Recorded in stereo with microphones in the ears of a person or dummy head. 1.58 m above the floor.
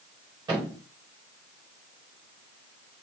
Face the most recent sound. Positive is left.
turn(degrees=-20)  # may be behind; listen again after turning